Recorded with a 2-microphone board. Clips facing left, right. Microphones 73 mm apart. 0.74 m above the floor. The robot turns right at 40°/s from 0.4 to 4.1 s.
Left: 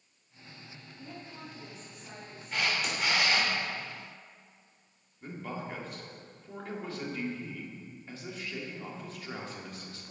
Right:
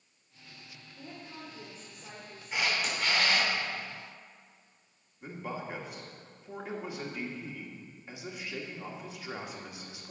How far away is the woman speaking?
About 1.9 m.